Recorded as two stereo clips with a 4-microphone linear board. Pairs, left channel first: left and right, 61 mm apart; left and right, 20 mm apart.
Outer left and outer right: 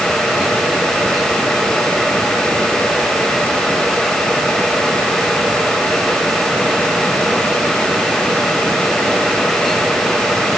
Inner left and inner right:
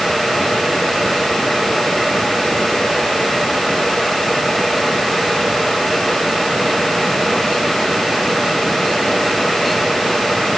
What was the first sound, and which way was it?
Only background noise.